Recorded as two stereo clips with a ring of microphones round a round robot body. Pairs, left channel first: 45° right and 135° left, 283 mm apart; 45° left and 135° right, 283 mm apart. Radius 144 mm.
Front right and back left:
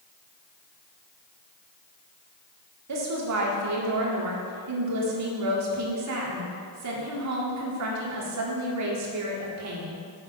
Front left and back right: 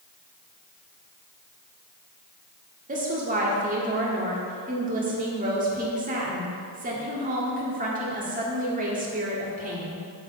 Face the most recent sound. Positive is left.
turn(degrees=165)